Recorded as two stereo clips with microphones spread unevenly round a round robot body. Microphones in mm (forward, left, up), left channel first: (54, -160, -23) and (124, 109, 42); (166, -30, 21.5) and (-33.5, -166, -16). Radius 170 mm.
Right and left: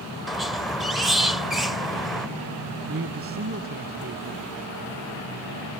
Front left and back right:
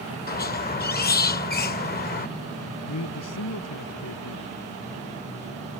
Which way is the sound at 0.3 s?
20° right.